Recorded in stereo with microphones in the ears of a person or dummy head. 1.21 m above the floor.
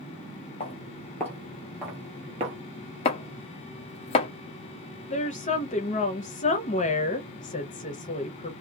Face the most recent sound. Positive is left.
turn(degrees=30)  # may be behind; listen again after turning